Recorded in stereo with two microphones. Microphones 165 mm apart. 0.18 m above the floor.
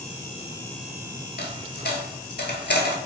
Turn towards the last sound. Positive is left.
turn(degrees=80)